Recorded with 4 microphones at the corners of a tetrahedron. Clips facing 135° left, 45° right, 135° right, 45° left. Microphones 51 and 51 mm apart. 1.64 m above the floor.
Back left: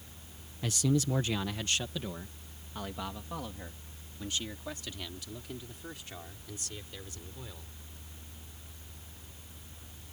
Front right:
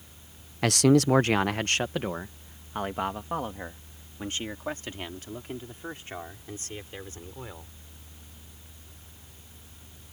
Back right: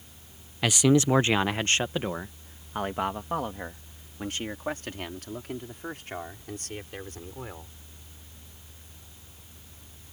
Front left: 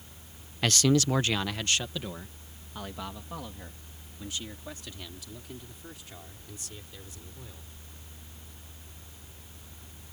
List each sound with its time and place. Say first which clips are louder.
0.6 s a man speaking: front right 10 dB, back right 3 dB; 55° right; by 7.7 s 100° right